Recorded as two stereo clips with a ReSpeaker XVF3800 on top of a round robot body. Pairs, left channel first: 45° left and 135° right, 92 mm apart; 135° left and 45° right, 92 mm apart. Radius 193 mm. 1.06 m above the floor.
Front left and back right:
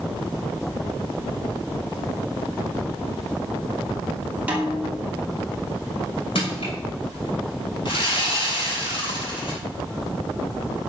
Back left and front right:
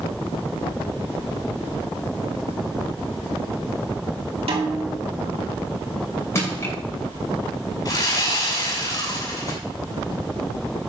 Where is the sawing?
80° left, 6.5 m.